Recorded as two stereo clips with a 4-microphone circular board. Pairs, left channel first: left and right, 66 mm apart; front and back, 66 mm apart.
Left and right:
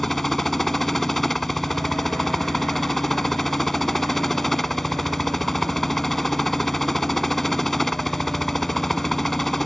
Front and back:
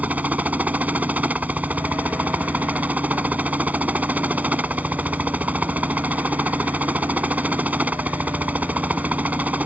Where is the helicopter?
170° left.